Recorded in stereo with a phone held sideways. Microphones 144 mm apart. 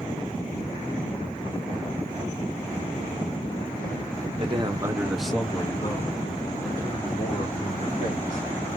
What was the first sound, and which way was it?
A man speaking, 40° right (ahead or behind).